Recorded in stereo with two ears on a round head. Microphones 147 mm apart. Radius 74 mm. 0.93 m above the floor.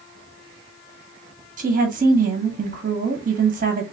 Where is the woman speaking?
50° right (ahead or behind), 1.3 m.